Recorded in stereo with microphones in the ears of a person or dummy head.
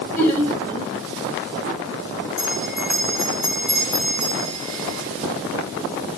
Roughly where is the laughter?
Centre.